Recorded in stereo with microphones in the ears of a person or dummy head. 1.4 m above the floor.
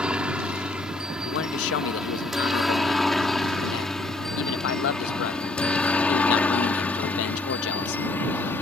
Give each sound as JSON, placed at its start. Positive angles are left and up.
{"t": 0.0, "sound": "a helicopter", "side_deg": 5}
{"t": 1.2, "sound": "a man speaking", "side_deg": 85}